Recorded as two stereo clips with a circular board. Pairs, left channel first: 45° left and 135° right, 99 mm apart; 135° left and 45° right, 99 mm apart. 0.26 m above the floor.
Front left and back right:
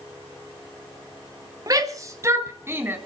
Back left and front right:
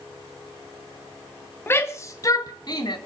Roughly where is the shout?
Behind.